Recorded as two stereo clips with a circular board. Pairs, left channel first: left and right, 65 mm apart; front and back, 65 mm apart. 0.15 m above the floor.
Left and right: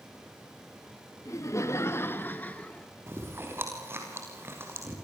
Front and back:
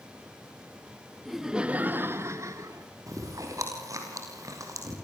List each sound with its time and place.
1.2 s laughter: 90° left, 1.7 m; by 2.9 s 160° left, 2.5 m
3.1 s chewing: 145° right, 6.5 m